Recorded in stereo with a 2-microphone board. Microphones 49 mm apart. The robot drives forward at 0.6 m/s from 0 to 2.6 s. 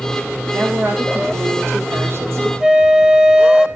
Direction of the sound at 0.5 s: 45° right (ahead or behind).